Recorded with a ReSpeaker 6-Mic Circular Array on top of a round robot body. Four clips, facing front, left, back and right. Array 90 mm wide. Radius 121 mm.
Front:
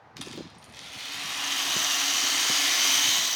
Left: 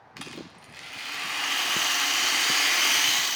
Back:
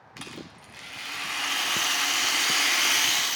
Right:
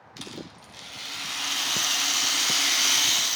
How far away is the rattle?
About 1.3 m.